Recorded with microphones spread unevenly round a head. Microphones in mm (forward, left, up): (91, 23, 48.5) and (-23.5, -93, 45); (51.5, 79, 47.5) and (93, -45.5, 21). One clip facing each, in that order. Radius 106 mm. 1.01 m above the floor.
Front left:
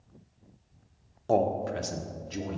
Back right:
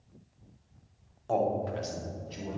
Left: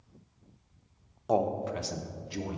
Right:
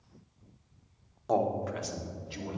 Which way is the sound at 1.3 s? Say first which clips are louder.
Front left 3 dB, left 1 dB; 20° left.